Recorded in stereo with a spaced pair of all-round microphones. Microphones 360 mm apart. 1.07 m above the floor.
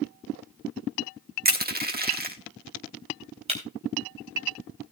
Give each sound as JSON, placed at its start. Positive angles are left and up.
{"t": 1.4, "sound": "crushing", "side_deg": -25, "distance_m": 1.1}
{"t": 3.5, "sound": "breaking glass", "side_deg": -15, "distance_m": 3.5}